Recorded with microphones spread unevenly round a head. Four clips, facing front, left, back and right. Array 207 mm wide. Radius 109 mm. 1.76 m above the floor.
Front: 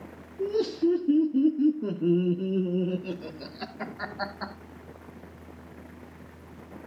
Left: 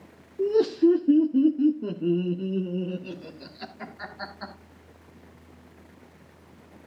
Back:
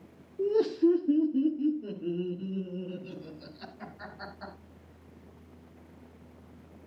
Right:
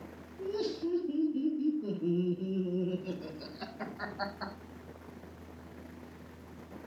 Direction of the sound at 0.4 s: 100° left.